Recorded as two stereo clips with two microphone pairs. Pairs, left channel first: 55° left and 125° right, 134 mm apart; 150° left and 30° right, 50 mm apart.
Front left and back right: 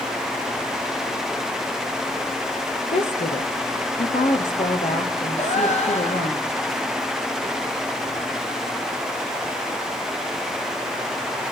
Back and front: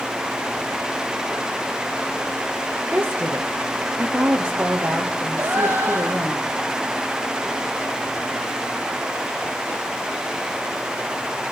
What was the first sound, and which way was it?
A woman speaking, 30° left.